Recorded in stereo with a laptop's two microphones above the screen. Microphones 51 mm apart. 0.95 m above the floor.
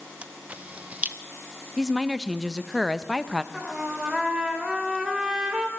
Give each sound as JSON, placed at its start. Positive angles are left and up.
{"t": 0.2, "sound": "a camera shutter", "side_deg": -25, "distance_m": 0.7}
{"t": 1.8, "sound": "a woman speaking", "side_deg": -5, "distance_m": 0.7}
{"t": 3.5, "sound": "a trumpet", "side_deg": -10, "distance_m": 2.5}